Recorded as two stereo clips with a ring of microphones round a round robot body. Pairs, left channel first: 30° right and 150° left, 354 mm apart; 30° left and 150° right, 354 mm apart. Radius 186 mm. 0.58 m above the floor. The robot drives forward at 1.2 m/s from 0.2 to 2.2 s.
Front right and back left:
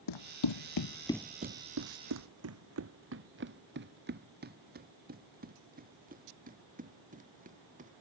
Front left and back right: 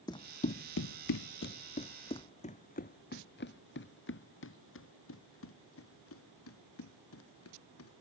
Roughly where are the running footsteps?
Ahead right.